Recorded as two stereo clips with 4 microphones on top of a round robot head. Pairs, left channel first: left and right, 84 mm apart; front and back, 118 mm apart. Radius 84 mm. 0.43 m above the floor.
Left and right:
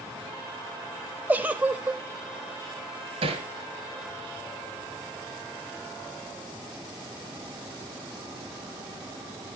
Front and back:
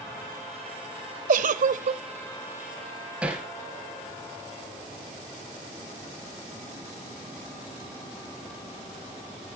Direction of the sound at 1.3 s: 165° right.